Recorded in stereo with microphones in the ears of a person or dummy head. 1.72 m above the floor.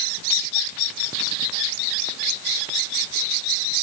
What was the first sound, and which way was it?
Only background noise.